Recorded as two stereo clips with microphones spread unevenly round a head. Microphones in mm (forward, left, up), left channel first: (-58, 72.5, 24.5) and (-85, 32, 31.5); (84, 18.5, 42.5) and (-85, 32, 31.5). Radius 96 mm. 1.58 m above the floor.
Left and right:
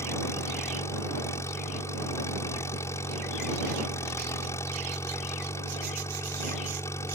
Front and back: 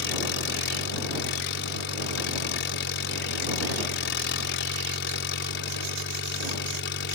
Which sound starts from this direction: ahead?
An engine running, at 0.0 s.